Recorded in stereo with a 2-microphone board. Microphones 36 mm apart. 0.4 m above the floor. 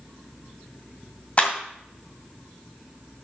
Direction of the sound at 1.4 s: 40° left (ahead or behind).